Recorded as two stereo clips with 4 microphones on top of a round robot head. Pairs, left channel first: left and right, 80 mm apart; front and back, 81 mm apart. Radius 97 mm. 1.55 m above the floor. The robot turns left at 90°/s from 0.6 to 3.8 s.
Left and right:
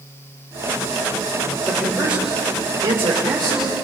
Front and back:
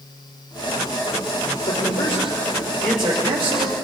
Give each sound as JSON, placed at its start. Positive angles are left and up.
{"t": 1.6, "sound": "a man speaking", "azimuth_deg": 25, "distance_m": 6.0}